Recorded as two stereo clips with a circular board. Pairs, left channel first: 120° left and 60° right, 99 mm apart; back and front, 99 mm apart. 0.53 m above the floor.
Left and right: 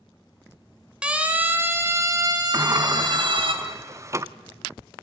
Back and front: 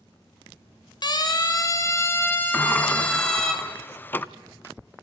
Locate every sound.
1.0 s a siren: 140° right, 2.5 m; by 3.5 s 95° right, 3 m
2.5 s a sliding door: 115° right, 0.6 m